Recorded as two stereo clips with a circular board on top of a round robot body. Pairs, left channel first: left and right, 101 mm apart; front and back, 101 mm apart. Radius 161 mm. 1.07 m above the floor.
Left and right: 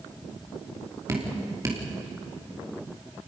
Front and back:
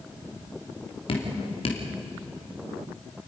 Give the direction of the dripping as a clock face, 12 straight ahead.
1 o'clock.